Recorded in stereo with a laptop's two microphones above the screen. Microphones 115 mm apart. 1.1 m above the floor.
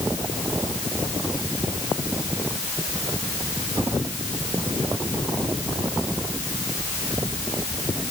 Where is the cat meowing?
I don't hear a cat meowing.